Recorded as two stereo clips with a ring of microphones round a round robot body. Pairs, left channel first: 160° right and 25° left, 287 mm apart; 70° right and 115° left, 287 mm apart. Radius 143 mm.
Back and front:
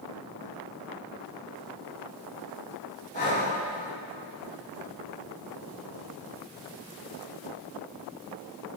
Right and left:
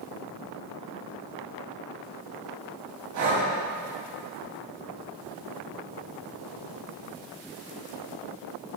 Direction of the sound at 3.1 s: 145° left.